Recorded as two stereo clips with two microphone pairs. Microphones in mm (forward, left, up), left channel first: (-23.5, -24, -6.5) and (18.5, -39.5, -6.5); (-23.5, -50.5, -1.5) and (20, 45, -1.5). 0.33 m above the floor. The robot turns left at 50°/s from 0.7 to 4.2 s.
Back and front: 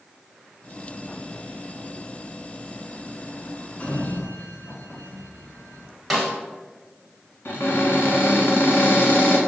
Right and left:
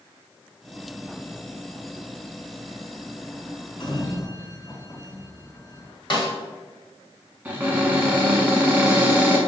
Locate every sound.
3.8 s a sliding door: 150° right, 0.7 m; by 5.9 s 170° right, 0.7 m
6.1 s a snare drum: 110° right, 1.3 m
7.5 s a cupboard door: 140° left, 1.0 m